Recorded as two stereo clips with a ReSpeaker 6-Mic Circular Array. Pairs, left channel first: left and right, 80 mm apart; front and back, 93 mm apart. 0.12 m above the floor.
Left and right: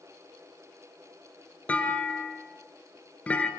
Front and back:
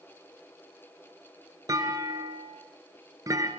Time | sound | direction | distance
1.7 | a clunk | 155° left | 1.8 m